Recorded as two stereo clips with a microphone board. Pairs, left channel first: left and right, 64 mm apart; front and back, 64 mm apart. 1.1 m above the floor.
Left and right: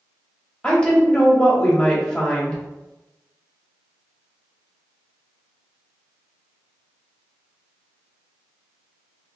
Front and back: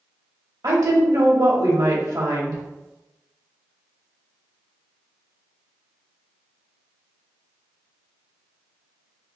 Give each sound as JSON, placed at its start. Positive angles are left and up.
{"t": 0.6, "sound": "a woman speaking", "azimuth_deg": 165, "distance_m": 1.2}